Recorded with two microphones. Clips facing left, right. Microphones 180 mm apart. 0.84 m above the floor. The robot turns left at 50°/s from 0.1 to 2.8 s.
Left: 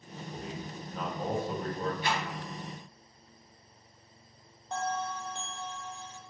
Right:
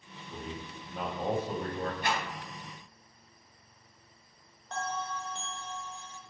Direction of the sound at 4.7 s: 10° left (ahead or behind).